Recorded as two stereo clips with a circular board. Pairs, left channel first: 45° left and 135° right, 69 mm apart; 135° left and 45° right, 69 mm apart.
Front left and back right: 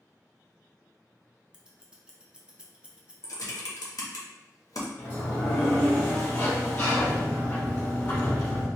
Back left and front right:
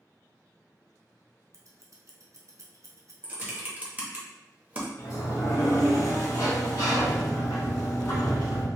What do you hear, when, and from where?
1.5 s scissors: 60° right, 0.6 m
3.2 s typing on a keyboard: 20° left, 0.8 m
5.0 s a sliding door: 100° left, 1.3 m